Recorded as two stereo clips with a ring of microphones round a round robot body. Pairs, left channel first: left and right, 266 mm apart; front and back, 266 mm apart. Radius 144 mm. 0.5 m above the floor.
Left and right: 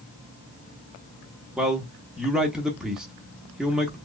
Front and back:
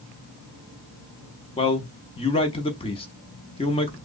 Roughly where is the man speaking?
Ahead.